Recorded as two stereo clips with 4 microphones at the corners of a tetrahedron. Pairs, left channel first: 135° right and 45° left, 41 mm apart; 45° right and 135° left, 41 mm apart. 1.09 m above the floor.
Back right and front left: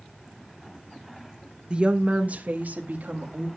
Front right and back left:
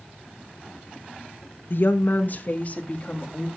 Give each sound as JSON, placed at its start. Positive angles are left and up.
{"t": 1.7, "sound": "a woman speaking", "azimuth_deg": -20, "distance_m": 1.0}